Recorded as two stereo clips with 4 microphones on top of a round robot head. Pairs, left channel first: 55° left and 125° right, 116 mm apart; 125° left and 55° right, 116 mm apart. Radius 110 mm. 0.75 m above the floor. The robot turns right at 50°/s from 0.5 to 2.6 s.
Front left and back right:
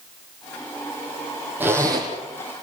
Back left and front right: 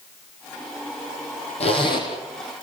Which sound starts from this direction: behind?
A zipper, at 1.6 s.